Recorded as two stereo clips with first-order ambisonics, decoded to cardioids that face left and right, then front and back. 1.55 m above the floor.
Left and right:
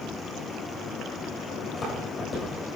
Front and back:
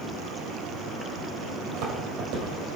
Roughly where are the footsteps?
Behind left.